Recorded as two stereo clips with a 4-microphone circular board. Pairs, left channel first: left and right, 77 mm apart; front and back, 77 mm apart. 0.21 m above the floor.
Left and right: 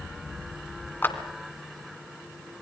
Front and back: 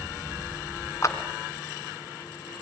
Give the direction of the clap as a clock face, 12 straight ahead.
11 o'clock.